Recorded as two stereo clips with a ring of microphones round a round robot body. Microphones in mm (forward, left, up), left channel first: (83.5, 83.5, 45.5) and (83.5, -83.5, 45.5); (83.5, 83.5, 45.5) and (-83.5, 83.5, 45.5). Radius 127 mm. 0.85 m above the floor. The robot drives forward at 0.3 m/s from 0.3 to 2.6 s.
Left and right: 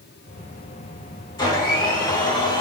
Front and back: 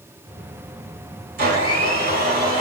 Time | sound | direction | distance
1.4 | a blender | 165° left | 4 m